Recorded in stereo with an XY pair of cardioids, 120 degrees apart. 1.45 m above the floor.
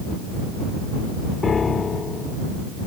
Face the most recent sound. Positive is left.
turn(degrees=35)